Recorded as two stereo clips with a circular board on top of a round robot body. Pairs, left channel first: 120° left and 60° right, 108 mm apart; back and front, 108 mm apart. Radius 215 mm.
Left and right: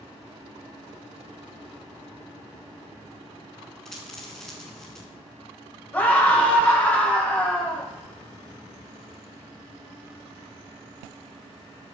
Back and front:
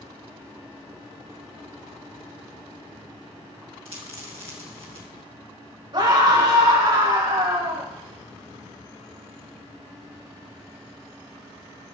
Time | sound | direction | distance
3.9 | a dropped coin | 35° left | 2.5 m
5.9 | a scream | 45° left | 5.5 m